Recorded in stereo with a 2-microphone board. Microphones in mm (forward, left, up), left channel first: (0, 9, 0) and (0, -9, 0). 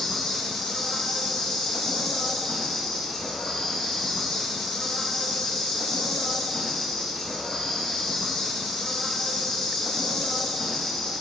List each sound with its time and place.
0.0 s an insect: 40° left (ahead or behind), 3 m